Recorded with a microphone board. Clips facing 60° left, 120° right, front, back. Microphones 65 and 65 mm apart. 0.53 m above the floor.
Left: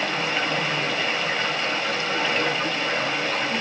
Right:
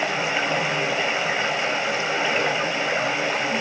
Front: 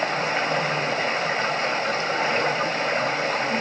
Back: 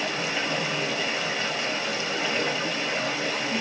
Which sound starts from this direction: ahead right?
Running water, at 0.0 s.